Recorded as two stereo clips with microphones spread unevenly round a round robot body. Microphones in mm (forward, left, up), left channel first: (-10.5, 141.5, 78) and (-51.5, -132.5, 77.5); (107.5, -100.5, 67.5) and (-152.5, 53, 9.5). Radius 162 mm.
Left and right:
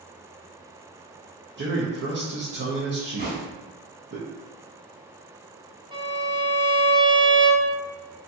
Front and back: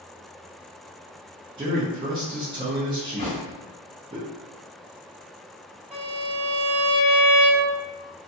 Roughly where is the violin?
Behind.